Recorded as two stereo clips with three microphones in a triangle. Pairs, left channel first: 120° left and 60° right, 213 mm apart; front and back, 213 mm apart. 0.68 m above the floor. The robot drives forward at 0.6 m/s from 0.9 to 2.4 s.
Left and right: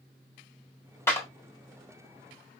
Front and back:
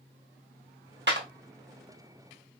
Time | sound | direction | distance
1.1 | a clap | 165° right | 1.2 m